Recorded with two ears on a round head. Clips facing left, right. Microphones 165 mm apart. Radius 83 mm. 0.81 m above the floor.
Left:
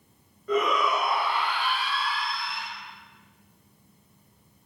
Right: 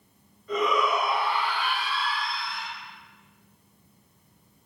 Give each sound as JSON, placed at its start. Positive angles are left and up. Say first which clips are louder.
{"t": 0.5, "sound": "a shout", "louder": "even", "side_deg": 45, "distance_m": 1.0}